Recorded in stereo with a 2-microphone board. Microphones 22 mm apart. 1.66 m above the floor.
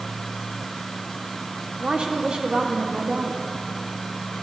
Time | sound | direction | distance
1.8 | a woman speaking | 55° right (ahead or behind) | 1.3 m